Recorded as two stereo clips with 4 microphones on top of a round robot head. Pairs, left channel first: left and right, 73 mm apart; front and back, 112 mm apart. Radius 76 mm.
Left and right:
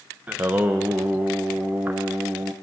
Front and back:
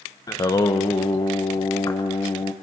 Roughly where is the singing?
Ahead right.